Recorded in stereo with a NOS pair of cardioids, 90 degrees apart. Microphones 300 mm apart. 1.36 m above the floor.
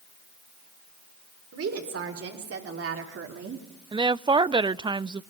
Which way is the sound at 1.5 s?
50° right.